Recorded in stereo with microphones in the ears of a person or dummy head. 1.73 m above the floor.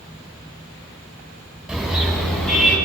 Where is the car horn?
5° right (ahead or behind), 8 m; by 2.8 s 5° left (ahead or behind), 9 m.